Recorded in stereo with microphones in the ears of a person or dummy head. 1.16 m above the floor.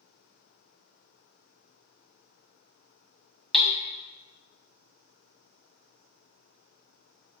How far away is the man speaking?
No man speaking in this recording.